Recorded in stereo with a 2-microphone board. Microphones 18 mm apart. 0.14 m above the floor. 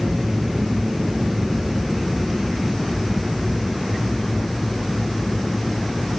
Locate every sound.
0.0 s an aircraft: 55° right (ahead or behind); by 6.2 s 10° left (ahead or behind)